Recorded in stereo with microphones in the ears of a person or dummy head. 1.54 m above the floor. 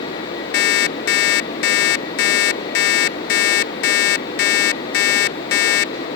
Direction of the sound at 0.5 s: 65° left (ahead or behind).